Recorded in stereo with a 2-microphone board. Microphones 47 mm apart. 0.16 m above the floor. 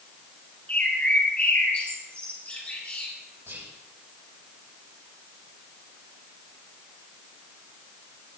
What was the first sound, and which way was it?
A bird, 35° left (ahead or behind).